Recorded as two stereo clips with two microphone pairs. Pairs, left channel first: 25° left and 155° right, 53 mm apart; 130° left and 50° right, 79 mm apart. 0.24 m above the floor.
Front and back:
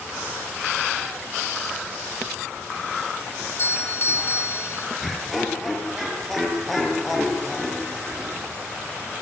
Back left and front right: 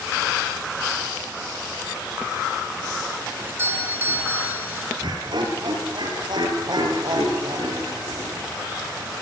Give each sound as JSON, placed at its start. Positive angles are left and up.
{"t": 3.4, "sound": "a doorbell", "azimuth_deg": 5, "distance_m": 3.0}
{"t": 5.0, "sound": "laughter", "azimuth_deg": -65, "distance_m": 6.0}